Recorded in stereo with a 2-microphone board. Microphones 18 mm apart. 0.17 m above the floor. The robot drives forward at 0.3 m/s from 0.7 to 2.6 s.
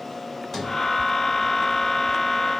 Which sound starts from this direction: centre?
A sliding door, at 0.5 s.